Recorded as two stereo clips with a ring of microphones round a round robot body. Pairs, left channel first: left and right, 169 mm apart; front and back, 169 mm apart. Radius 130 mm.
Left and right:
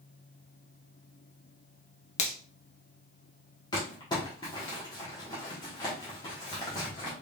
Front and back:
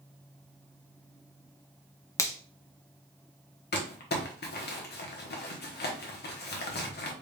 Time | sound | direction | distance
2.2 | a finger snap | 65° left | 0.8 m
3.7 | crumpling | 20° left | 1.0 m